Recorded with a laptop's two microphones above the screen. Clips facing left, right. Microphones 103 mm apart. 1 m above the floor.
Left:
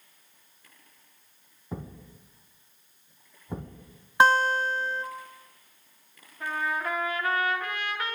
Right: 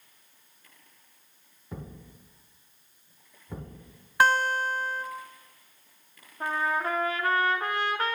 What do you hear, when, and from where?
1.7 s a thud: 25° left (ahead or behind), 1.2 m
4.2 s a guitar: 20° left (ahead or behind), 0.5 m
6.4 s a trumpet: 35° right (ahead or behind), 1.0 m